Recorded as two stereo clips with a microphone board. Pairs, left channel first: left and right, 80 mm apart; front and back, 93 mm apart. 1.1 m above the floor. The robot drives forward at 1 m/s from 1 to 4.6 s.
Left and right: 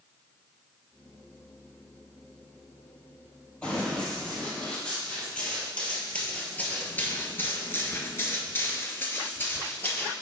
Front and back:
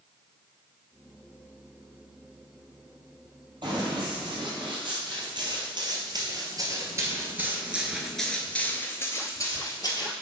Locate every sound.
3.6 s running footsteps: 165° left, 2 m; by 10.1 s 25° left, 1.7 m